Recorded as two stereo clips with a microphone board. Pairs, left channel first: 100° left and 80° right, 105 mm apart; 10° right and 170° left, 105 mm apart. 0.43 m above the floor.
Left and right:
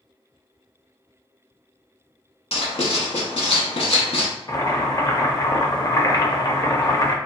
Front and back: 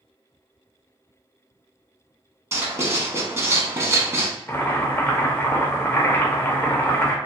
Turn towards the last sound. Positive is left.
turn(degrees=55)